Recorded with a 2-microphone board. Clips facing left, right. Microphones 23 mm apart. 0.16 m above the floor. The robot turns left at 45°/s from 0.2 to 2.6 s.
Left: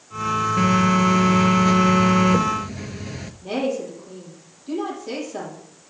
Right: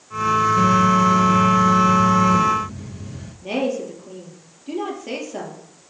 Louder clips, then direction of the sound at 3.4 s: Right 1 dB; 25° right (ahead or behind).